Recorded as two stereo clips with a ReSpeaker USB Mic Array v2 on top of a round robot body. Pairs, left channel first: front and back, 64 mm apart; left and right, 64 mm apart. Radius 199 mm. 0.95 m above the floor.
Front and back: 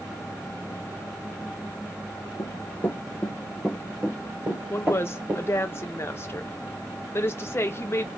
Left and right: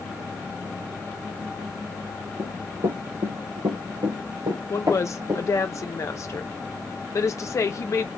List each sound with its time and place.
2.4 s running footsteps: 50° right, 1.3 m; by 5.7 s 130° right, 2 m
4.7 s a woman speaking: 50° left, 0.9 m